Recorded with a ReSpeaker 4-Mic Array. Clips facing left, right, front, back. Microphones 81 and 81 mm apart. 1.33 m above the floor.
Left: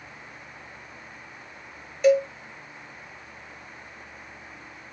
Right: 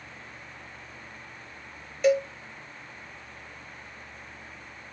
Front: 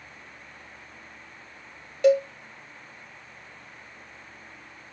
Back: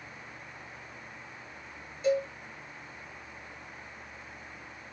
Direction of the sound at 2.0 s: Straight ahead.